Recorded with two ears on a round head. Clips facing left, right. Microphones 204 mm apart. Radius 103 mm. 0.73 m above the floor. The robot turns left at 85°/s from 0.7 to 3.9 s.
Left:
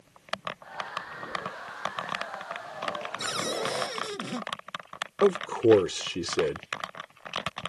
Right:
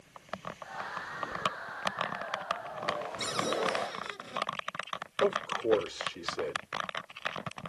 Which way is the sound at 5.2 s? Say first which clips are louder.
Left 8 dB; 70° left (ahead or behind).